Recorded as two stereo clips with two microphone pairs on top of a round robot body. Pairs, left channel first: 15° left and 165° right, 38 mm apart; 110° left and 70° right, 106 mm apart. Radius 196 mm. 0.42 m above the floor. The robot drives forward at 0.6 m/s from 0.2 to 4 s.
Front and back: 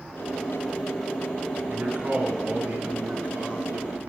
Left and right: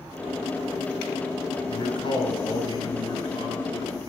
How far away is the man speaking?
About 7 m.